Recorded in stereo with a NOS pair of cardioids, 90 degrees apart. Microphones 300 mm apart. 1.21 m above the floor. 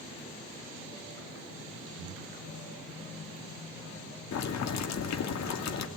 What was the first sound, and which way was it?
Breathing, 65° right.